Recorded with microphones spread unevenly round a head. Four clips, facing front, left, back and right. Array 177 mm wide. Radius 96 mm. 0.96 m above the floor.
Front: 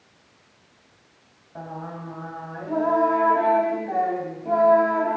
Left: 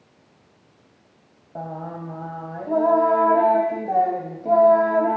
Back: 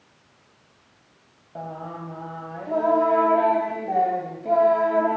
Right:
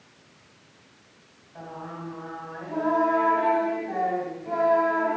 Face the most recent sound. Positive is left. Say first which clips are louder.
# left 6 dB, back 1 dB
turn(degrees=100)